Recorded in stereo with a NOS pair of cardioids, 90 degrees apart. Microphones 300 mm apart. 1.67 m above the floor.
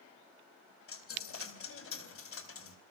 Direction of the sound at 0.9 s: 50° left.